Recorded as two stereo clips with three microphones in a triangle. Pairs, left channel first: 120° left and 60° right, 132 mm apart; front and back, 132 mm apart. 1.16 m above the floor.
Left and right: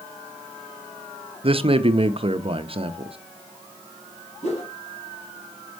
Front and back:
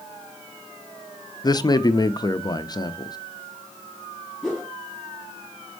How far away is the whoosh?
About 4 m.